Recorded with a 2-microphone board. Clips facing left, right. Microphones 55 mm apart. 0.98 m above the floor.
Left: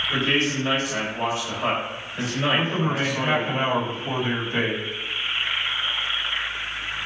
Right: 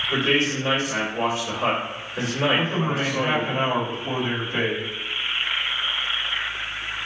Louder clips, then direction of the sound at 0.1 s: Right 2 dB; 80° right.